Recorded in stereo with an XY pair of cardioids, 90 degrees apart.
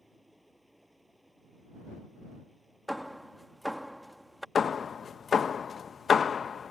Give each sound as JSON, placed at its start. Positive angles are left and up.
{"t": 0.0, "sound": "running water", "azimuth_deg": 0}
{"t": 2.9, "sound": "hammering", "azimuth_deg": 0}
{"t": 4.5, "sound": "hammering", "azimuth_deg": 50}